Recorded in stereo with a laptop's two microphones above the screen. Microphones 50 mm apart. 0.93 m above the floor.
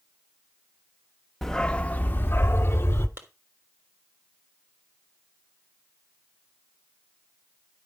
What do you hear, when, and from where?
1.4 s a dog barking: 5° left (ahead or behind), 0.5 m; by 3.1 s 60° left (ahead or behind), 1.1 m
3.2 s a clap: 50° right (ahead or behind), 1.3 m